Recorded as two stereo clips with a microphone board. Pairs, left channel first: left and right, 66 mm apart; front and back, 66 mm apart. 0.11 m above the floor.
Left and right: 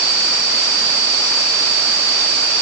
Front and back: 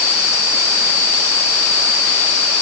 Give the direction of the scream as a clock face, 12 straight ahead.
I don't hear a scream.